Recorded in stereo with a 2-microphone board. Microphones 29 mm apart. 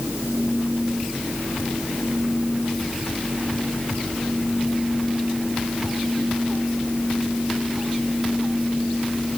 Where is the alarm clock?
I don't hear an alarm clock.